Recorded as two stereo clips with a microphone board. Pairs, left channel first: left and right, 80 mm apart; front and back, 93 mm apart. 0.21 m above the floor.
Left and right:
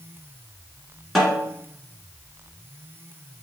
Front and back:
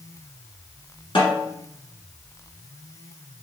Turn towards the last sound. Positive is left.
turn(degrees=-5)